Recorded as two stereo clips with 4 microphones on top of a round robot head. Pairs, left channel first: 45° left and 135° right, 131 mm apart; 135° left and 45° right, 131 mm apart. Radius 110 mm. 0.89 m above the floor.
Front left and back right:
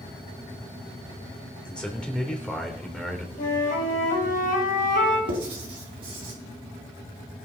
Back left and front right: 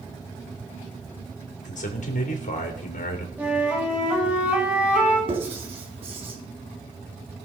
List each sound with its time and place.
1.6 s a man speaking: 125° left, 3 m
3.4 s a flute: 35° left, 3 m
5.3 s writing: 90° right, 4 m